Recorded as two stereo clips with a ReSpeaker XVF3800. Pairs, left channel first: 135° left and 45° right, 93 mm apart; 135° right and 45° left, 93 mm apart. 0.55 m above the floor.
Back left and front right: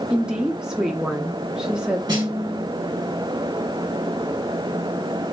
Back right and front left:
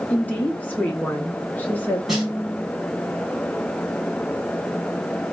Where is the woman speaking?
110° right, 0.6 m.